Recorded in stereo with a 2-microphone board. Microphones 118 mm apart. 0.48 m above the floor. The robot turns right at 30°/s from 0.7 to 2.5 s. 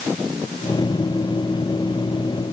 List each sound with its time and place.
Only background noise.